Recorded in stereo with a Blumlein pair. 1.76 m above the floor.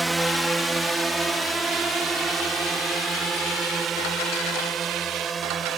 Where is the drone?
5° right; by 5.8 s 20° right.